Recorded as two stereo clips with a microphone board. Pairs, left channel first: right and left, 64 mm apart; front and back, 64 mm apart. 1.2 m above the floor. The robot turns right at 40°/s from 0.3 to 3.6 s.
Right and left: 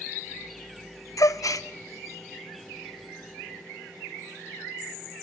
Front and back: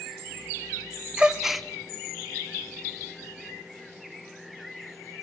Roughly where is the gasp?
Right.